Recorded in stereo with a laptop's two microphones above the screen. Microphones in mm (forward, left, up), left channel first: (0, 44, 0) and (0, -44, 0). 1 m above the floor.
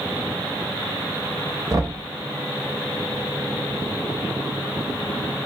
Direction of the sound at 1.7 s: 35° right (ahead or behind).